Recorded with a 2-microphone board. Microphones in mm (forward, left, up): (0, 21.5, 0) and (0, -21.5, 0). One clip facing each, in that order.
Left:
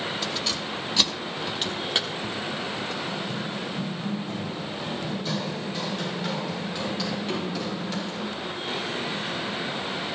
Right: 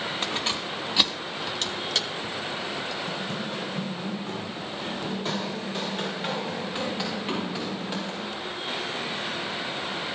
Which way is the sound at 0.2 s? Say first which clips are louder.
Right 1 dB; 40° right (ahead or behind).